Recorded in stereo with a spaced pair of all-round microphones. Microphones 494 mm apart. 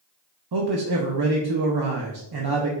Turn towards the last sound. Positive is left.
turn(degrees=-50)  # may be behind; listen again after turning